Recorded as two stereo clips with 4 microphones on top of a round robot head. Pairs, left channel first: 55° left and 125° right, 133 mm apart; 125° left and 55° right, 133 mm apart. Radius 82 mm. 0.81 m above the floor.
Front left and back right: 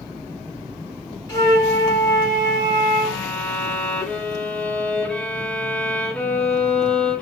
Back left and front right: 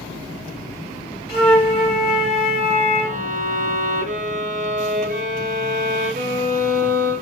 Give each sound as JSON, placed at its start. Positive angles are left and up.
{"t": 1.3, "sound": "a flute", "azimuth_deg": 125, "distance_m": 3.0}
{"t": 3.0, "sound": "a violin", "azimuth_deg": -25, "distance_m": 0.7}